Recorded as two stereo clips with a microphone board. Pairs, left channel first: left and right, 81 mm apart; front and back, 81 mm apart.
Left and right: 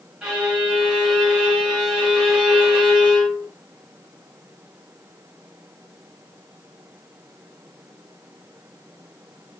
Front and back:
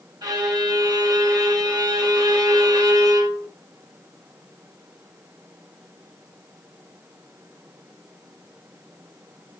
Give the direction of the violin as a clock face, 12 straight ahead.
6 o'clock.